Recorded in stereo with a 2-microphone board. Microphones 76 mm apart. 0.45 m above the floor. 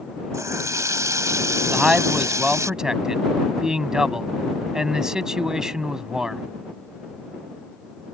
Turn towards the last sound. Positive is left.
turn(degrees=-10)  # may be behind; listen again after turning